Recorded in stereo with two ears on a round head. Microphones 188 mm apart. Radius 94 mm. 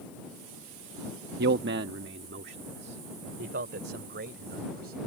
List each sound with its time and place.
1.4 s a man speaking: 50° right (ahead or behind)